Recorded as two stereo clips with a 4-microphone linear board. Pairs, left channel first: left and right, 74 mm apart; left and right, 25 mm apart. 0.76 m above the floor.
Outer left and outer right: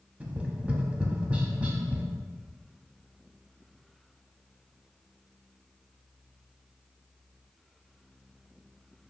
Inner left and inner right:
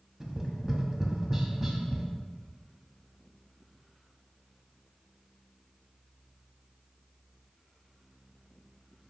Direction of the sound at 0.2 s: 20° right (ahead or behind).